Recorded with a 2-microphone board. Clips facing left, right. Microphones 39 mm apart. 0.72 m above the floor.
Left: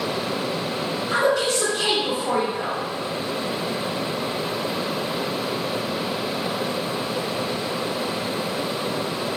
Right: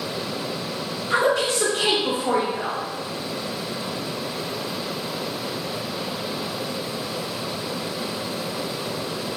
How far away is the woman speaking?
About 1.0 m.